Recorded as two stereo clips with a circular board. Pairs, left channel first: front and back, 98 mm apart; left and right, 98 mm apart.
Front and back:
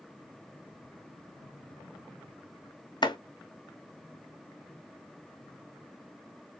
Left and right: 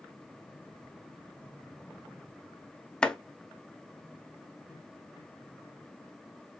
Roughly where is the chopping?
Ahead.